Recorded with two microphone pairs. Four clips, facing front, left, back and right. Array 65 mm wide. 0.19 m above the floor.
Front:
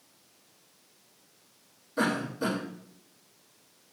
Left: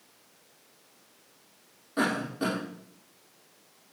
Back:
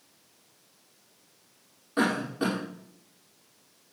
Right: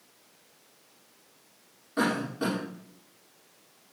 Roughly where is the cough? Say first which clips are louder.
Right 1 dB, back 2 dB; behind.